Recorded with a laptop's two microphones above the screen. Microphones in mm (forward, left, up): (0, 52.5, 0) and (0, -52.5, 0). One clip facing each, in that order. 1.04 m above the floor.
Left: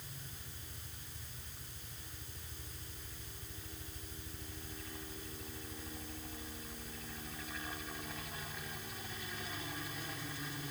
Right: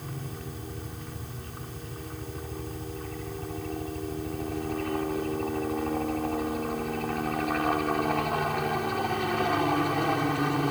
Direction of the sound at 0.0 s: 65° right (ahead or behind).